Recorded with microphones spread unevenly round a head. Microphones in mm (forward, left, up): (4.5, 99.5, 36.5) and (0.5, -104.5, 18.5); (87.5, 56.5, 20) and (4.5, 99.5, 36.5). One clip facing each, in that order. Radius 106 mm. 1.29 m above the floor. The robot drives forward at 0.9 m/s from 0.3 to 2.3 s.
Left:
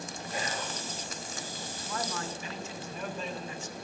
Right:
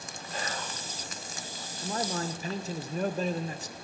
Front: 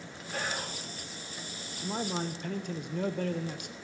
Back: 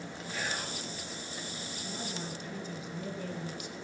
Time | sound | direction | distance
0.3 | whispering | 10° left | 5.5 m
1.8 | a man speaking | 25° right | 1.4 m